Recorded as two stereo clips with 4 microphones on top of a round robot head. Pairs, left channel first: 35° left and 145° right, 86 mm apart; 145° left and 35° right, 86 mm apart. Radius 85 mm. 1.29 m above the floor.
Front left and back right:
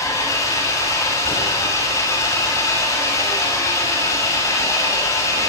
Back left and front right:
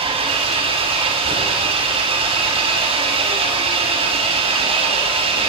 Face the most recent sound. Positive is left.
turn(degrees=-20)